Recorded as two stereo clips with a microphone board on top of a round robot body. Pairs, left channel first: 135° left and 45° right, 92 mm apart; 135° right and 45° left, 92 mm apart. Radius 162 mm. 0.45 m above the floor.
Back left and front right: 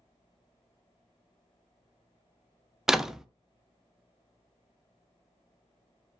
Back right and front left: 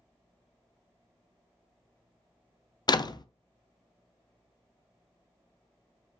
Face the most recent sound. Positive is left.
turn(degrees=-130)